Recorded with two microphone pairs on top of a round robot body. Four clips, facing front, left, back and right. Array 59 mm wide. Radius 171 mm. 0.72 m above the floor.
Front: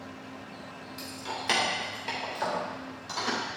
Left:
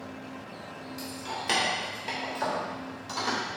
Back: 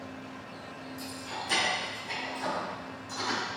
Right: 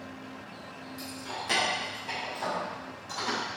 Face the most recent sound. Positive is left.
turn(degrees=50)